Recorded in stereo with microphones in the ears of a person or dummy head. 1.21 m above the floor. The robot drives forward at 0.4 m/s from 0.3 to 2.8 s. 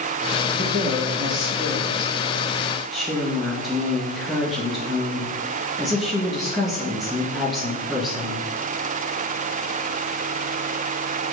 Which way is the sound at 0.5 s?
Centre (ahead or behind).